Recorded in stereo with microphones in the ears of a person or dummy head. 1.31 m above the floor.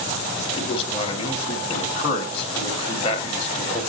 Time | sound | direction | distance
0.6 | a man speaking | 30° left (ahead or behind) | 1.8 m